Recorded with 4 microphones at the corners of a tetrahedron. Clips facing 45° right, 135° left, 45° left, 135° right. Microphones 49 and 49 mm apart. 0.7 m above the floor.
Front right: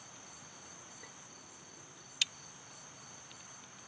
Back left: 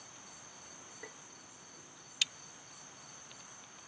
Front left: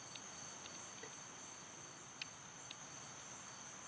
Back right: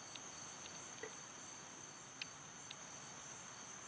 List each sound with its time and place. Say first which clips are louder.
1.0 s tapping: back left 7 dB, back right 6 dB; 170° left